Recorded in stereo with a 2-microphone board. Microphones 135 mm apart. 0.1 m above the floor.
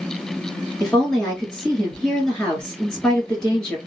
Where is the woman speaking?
5° left (ahead or behind), 1.5 m.